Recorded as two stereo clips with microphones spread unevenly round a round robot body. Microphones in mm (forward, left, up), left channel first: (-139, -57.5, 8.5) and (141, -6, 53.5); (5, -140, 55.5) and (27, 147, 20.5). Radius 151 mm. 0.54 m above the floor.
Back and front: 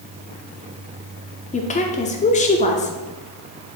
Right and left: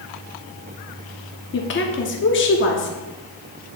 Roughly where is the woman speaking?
Behind right.